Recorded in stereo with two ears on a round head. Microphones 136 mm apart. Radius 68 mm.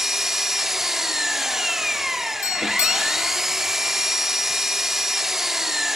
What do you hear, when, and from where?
0.0 s an engine running: centre (ahead or behind), 1.0 m
2.4 s a doorbell: 20° left (ahead or behind), 0.9 m